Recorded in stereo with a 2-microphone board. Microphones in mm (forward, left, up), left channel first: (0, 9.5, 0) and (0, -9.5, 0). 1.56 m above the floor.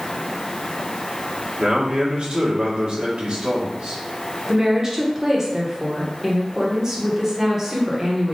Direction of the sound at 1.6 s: 65° right (ahead or behind).